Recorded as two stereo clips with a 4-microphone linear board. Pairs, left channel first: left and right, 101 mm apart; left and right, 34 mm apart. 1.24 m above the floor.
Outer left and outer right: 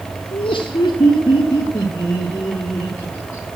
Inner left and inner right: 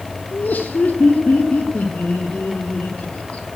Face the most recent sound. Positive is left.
turn(degrees=25)  # may be behind; listen again after turning